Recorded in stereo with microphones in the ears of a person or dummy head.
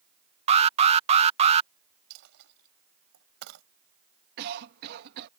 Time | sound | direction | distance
0.5 | an alarm | 35° right (ahead or behind) | ?
2.1 | a dropped coin | 70° right (ahead or behind) | ?
4.4 | a cough | 55° right (ahead or behind) | ?